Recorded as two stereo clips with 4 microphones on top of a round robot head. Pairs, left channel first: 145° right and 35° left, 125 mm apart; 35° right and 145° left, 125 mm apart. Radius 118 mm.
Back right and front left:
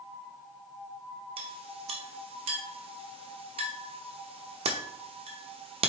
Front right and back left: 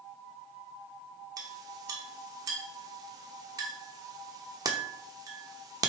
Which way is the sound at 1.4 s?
80° left.